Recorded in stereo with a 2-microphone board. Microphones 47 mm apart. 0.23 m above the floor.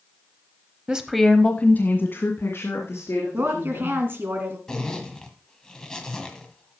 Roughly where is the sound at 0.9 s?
Centre.